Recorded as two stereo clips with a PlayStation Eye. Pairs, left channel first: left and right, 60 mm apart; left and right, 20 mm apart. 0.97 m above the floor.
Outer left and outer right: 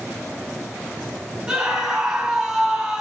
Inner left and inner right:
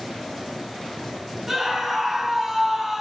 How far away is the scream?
About 1.6 m.